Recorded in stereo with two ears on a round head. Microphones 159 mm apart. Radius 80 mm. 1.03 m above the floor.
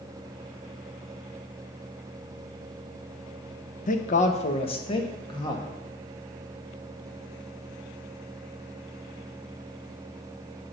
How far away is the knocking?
I don't hear knocking.